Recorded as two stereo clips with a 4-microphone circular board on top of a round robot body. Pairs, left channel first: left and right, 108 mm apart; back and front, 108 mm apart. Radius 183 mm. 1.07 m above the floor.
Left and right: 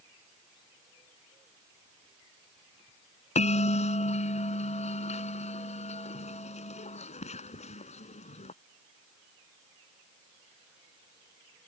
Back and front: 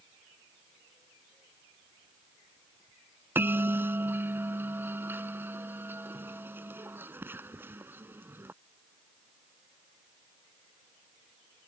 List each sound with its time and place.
3.4 s a bell: 70° left